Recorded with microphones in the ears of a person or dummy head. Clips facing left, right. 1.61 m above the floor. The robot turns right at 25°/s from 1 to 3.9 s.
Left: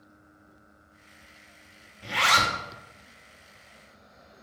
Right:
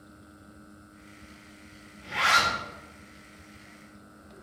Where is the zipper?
50° left (ahead or behind), 0.6 m; by 2.5 s 40° left (ahead or behind), 0.6 m.